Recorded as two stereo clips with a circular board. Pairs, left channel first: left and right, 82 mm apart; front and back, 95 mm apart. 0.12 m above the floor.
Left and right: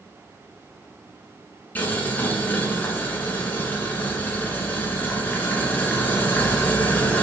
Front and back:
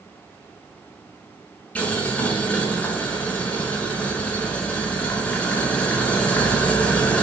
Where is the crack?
I don't hear a crack.